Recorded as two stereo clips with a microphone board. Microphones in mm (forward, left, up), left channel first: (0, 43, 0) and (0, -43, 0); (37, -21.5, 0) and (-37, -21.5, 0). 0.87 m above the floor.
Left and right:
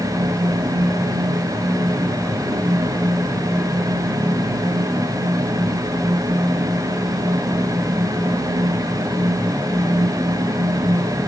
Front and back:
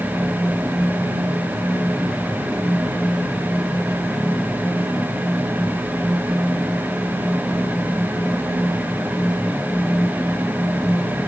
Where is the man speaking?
No man speaking in this recording.